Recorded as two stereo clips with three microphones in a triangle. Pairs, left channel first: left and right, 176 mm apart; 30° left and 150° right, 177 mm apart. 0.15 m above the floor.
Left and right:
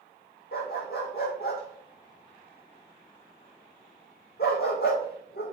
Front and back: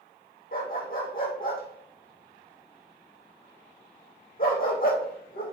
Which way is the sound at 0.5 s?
65° left.